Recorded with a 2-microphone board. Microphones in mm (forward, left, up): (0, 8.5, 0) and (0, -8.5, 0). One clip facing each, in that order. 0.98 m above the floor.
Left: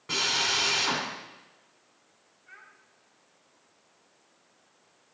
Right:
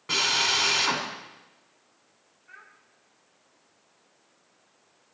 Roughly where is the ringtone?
No ringtone in this recording.